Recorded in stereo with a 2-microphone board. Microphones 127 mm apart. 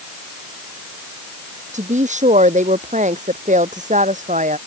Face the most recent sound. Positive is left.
turn(degrees=-75)  # may be behind; listen again after turning